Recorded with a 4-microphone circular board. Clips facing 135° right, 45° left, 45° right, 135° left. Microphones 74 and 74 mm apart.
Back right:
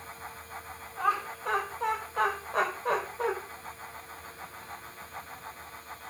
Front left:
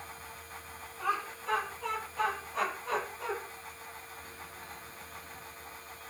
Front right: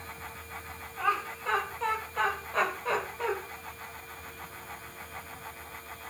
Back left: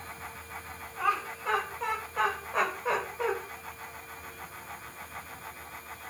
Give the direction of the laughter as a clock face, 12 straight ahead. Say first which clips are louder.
Back right 5 dB, even; 5 o'clock.